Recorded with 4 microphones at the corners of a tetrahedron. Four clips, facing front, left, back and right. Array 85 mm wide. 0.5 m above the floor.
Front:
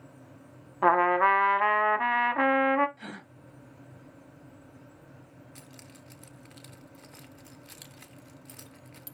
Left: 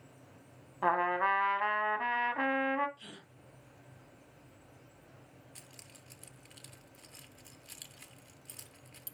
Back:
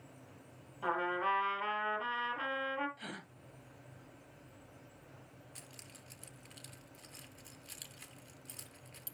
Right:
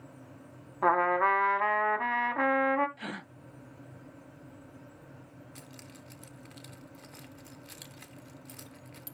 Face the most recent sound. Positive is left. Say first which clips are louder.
# right 7 dB, front 6 dB
turn(degrees=-45)